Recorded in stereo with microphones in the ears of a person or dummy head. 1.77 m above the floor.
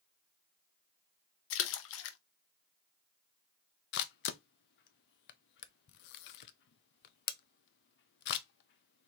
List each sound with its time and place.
1.5 s a splash: 75° left (ahead or behind), 0.6 m
3.9 s a camera shutter: 60° left (ahead or behind), 0.5 m